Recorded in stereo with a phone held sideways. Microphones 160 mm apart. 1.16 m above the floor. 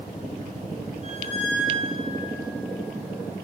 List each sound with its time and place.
1.0 s a squeak: 50° right (ahead or behind), 2.5 m